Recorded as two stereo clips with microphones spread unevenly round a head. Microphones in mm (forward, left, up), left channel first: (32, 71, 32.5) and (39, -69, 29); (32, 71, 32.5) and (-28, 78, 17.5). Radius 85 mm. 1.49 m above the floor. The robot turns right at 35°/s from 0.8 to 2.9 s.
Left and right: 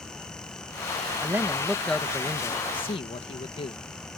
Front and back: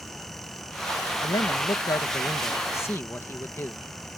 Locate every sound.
1.2 s a man speaking: 15° right; by 3.8 s 45° left